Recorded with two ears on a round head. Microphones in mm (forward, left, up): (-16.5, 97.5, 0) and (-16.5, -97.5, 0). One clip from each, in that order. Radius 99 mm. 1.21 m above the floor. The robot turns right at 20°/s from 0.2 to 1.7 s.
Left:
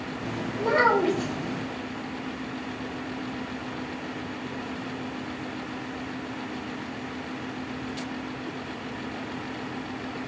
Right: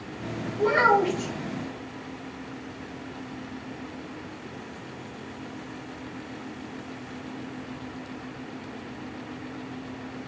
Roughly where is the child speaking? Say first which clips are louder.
Right 1 dB; right.